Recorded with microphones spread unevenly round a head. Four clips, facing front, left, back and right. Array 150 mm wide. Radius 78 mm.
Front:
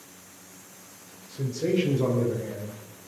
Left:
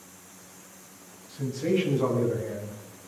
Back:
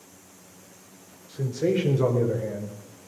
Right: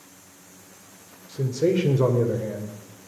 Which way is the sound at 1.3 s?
100° right.